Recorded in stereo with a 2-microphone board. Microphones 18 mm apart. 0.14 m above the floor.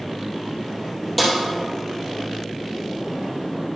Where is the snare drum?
5° left (ahead or behind), 2.5 m.